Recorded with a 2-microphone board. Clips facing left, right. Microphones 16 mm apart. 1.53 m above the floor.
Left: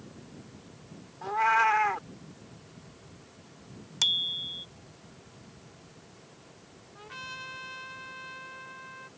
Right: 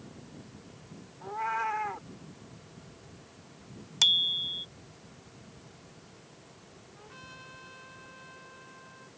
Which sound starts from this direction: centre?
A bicycle bell, at 4.0 s.